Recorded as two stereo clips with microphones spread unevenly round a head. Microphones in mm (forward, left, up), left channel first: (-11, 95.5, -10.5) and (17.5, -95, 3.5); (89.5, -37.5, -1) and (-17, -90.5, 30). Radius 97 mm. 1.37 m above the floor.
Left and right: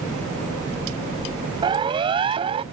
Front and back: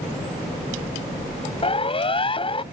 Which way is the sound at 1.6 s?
15° right.